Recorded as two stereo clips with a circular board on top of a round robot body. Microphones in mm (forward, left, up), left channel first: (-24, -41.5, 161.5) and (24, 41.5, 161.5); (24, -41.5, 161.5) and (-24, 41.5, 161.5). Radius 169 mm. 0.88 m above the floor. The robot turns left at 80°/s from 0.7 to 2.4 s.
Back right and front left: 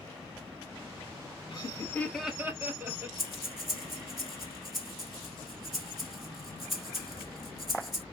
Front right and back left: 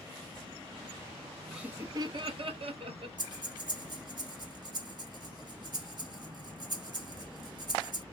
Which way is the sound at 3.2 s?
150° left.